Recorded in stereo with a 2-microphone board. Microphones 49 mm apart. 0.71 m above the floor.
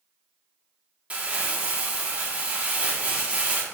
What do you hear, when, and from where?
1.1 s crumpling: 25° right (ahead or behind), 1.2 m